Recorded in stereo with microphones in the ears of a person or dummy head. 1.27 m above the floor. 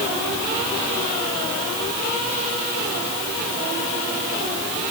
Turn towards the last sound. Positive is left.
No sound to turn to.